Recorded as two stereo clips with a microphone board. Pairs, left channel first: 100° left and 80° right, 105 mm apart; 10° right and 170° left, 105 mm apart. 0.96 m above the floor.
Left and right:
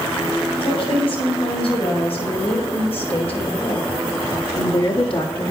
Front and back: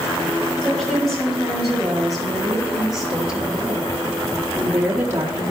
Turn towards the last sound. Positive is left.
turn(degrees=120)